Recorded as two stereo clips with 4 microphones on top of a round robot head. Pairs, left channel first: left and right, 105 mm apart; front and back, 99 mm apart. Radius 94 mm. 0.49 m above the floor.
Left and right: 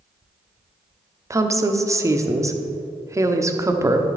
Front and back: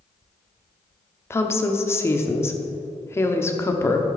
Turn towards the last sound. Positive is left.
turn(degrees=-50)